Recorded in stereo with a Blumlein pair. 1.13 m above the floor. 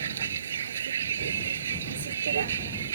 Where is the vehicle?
65° right.